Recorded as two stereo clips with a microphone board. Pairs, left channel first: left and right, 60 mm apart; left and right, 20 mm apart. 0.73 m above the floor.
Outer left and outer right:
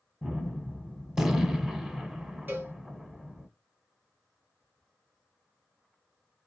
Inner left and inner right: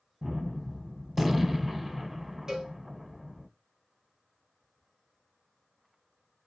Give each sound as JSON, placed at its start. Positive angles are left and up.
{"t": 0.2, "sound": "a gunshot", "side_deg": -10, "distance_m": 0.8}
{"t": 2.5, "sound": "a cowbell", "side_deg": -35, "distance_m": 1.2}